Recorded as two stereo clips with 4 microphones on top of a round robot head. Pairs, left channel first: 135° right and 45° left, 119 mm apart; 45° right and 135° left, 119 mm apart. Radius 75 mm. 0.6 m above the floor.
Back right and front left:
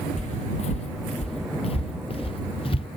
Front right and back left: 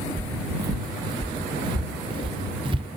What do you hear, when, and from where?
0.2 s footsteps: 165° right; by 2.9 s straight behind